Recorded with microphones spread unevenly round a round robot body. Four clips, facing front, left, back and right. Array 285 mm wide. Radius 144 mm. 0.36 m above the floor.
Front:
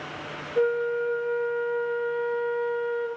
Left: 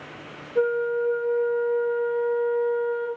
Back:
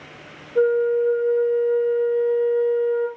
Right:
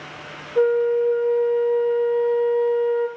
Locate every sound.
0.6 s a flute: 165° right, 3.5 m